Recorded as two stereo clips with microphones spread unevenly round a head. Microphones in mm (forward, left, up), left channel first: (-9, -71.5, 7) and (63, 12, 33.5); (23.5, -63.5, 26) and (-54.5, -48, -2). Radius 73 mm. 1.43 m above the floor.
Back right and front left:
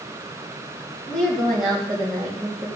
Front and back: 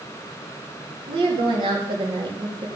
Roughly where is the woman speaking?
Behind left.